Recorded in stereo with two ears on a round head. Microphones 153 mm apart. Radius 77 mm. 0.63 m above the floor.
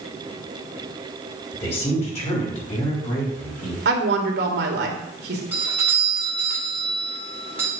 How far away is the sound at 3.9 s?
About 2 m.